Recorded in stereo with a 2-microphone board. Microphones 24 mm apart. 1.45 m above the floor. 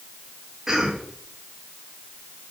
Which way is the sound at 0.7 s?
15° right (ahead or behind).